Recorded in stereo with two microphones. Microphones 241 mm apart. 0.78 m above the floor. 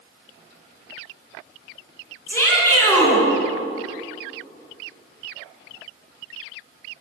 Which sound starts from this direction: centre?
A shout, at 2.3 s.